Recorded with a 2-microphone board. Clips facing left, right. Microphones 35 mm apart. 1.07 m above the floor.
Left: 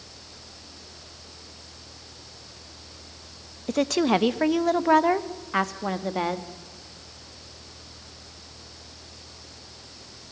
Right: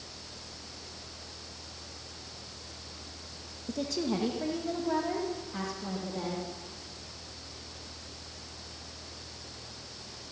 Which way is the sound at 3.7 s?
65° left (ahead or behind).